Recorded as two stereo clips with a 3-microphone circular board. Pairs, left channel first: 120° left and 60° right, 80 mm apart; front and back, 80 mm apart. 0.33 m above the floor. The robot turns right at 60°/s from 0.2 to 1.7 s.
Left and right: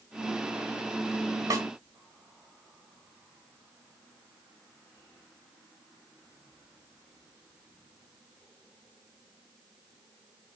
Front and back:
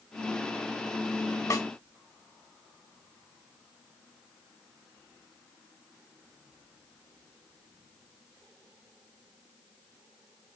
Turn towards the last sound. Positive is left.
turn(degrees=-10)